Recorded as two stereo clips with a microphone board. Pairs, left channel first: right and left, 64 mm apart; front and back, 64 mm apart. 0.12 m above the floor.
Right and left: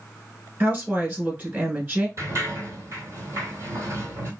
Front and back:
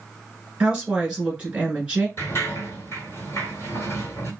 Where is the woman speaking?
120° left, 1.3 m.